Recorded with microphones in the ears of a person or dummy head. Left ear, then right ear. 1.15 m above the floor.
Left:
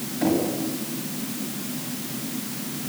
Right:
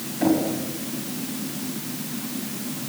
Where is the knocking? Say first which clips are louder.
Right 2 dB; 15° right (ahead or behind), 5.5 m.